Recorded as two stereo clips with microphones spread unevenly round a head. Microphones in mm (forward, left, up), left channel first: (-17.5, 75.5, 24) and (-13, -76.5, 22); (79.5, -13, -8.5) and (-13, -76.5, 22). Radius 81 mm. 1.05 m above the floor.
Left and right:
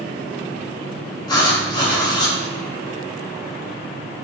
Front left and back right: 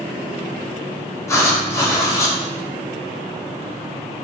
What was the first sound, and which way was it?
Writing, 40° left.